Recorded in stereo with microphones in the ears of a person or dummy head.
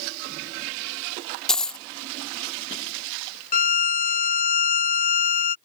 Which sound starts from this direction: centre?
A dropped coin, at 1.5 s.